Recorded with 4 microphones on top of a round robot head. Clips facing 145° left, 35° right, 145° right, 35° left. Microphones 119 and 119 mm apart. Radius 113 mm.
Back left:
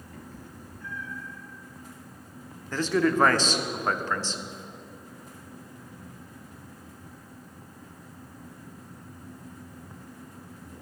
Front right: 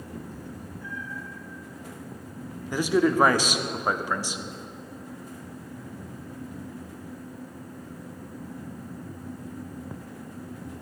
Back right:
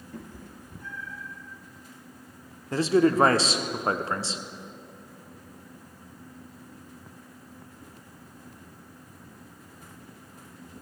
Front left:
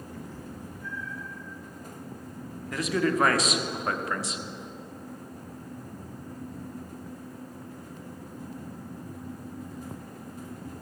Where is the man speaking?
105° right, 0.9 m.